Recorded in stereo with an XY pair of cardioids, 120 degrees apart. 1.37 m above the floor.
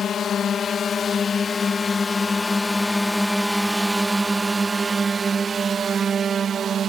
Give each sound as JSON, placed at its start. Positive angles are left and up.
{"t": 0.0, "sound": "a drone", "azimuth_deg": 50}